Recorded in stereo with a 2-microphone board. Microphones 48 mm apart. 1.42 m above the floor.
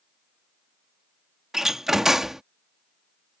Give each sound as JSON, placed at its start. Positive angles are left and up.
{"t": 1.5, "sound": "a door slam", "side_deg": -10}